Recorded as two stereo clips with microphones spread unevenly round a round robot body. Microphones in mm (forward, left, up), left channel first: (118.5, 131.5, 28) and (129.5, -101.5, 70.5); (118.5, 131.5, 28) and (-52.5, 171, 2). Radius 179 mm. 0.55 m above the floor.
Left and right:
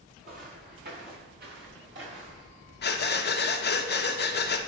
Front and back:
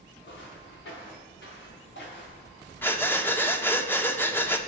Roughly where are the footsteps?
Ahead right.